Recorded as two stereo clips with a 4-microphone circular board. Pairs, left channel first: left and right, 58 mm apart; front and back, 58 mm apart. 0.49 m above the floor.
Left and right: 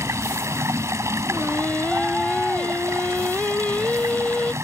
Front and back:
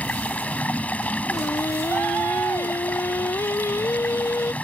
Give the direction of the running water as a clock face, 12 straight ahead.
2 o'clock.